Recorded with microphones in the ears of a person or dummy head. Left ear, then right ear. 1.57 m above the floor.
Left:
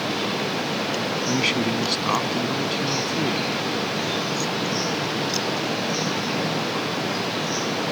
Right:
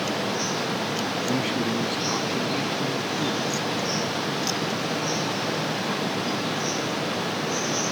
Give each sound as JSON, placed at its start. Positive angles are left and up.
{"t": 1.3, "sound": "a man speaking", "side_deg": 40}